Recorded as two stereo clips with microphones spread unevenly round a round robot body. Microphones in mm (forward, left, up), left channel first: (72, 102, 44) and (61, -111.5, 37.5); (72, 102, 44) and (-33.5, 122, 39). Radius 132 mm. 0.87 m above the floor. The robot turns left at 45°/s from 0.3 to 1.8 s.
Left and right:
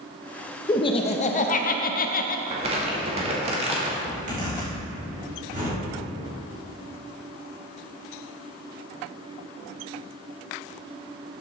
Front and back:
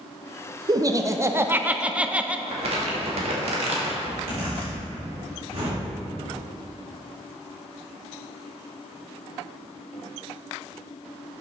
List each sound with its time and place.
0.7 s laughter: 150° left, 0.5 m; by 2.4 s 100° left, 0.5 m
2.5 s crumpling: 160° right, 1.1 m
4.0 s a zipper: 150° right, 3 m